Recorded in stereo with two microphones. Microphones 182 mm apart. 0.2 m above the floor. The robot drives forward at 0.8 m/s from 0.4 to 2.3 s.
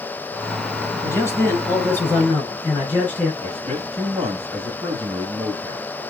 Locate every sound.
1.0 s a man speaking: 15° left (ahead or behind), 1.4 m; by 3.3 s 10° left (ahead or behind), 2 m
3.4 s a man speaking: 35° right (ahead or behind), 1.2 m